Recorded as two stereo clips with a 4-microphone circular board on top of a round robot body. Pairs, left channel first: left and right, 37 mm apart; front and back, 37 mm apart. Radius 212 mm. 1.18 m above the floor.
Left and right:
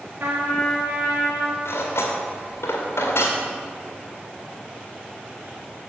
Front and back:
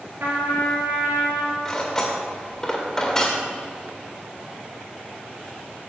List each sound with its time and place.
0.2 s a trumpet: 135° right, 2 m
1.6 s cutlery clinking: 80° left, 1.7 m